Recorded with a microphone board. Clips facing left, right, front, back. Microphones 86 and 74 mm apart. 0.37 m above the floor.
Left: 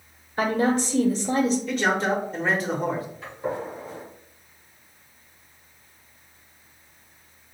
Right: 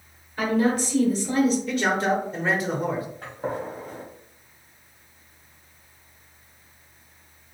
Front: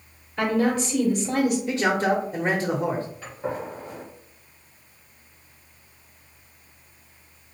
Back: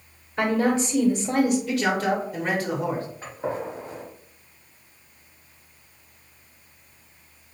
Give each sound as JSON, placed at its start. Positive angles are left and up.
{"t": 0.4, "sound": "a woman speaking", "azimuth_deg": 120, "distance_m": 1.1}
{"t": 1.7, "sound": "a man speaking", "azimuth_deg": -5, "distance_m": 0.9}
{"t": 3.2, "sound": "a gunshot", "azimuth_deg": -125, "distance_m": 1.7}